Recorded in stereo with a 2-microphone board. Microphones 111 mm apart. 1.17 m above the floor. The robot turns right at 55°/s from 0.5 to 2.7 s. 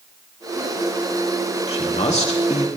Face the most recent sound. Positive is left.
turn(degrees=120)